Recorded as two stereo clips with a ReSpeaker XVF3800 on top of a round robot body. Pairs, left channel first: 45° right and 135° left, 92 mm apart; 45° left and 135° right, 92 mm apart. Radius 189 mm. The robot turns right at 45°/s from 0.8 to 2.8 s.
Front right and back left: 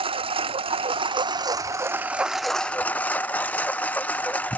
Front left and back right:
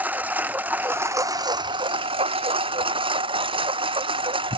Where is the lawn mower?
150° left; by 4.6 s 120° right.